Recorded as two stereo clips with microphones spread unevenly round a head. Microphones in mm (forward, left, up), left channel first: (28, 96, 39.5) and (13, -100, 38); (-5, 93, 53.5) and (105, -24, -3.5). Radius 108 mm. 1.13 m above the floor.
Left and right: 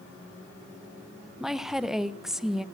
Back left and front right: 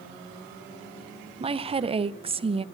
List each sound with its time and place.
1.4 s a woman speaking: 5° right, 0.9 m